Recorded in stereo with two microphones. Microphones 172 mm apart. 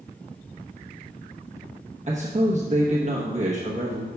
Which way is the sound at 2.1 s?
45° right (ahead or behind).